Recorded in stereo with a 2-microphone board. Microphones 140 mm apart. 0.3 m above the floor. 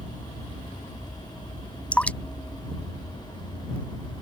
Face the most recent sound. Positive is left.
turn(degrees=10)  # may be behind; listen again after turning